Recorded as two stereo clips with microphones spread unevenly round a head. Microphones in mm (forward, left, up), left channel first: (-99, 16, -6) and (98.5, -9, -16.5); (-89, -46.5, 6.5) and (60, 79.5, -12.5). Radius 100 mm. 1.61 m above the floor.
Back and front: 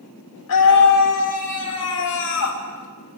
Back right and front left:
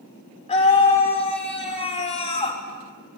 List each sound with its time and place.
0.5 s a scream: 160° left, 6.5 m